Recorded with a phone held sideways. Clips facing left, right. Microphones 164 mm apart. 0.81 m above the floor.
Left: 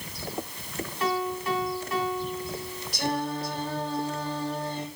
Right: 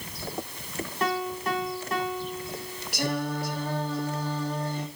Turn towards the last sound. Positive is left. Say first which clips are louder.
# even
turn(degrees=-65)  # may be behind; listen again after turning